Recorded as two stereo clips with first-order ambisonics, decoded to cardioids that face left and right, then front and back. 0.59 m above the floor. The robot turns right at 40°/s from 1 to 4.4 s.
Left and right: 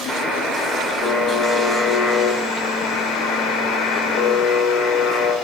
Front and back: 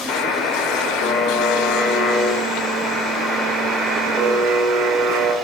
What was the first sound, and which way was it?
A buzzer, 10° right.